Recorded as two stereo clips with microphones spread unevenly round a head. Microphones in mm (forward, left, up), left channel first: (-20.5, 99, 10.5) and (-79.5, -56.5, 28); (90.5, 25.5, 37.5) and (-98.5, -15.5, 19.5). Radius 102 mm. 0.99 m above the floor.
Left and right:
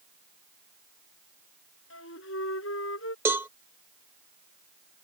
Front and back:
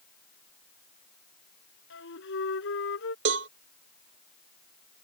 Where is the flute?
40° left.